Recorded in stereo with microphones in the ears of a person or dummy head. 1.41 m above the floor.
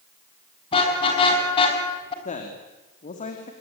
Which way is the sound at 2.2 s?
40° left (ahead or behind).